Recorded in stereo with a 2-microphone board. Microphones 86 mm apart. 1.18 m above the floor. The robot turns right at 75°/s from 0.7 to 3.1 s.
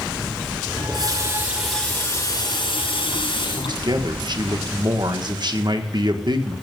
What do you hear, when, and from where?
0.7 s a running tap: 70° right, 5.5 m; by 3.8 s 105° left, 5.5 m
3.5 s a man speaking: 55° right (ahead or behind), 1.4 m